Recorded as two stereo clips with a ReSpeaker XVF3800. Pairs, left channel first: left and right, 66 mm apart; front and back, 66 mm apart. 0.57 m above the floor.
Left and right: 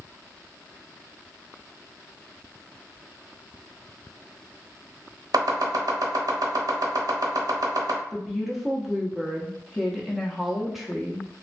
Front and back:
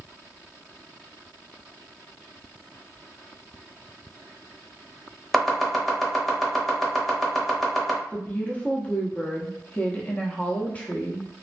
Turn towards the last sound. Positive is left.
turn(degrees=-5)